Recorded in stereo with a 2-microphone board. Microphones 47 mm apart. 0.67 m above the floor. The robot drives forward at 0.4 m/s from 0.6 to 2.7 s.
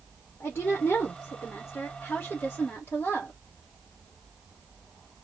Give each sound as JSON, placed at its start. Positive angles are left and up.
{"t": 0.4, "sound": "a woman speaking", "side_deg": 55, "distance_m": 1.3}